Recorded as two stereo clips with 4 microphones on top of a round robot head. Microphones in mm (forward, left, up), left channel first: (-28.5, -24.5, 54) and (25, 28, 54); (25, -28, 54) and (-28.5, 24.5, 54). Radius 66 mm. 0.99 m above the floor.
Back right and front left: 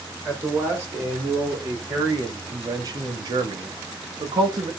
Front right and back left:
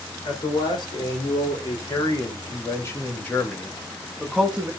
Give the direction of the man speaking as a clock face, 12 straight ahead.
1 o'clock.